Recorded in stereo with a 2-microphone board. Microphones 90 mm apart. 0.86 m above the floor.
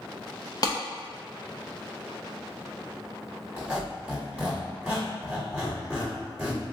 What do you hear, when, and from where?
0.6 s a clap: 40° left (ahead or behind), 0.6 m
3.6 s a squeak: 10° right (ahead or behind), 1.4 m